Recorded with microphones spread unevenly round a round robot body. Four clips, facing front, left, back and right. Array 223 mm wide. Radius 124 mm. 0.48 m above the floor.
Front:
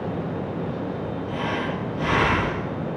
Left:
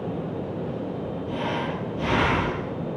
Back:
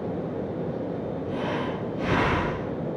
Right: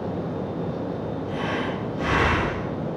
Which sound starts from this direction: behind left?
Breathing, at 1.3 s.